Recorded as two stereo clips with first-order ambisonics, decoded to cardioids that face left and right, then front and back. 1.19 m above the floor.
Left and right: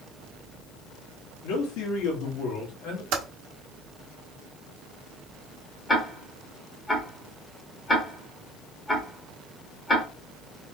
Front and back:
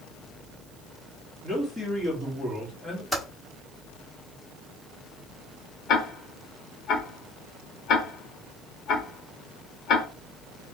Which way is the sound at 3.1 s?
95° right.